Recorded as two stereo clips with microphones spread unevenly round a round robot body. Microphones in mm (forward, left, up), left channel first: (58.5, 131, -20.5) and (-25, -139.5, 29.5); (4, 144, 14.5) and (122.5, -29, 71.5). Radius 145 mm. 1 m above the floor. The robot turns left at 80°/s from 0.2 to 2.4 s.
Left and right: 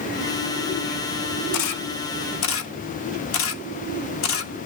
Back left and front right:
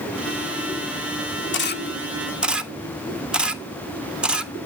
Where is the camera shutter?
105° left, 1.5 m; by 4.5 s 35° left, 1.5 m.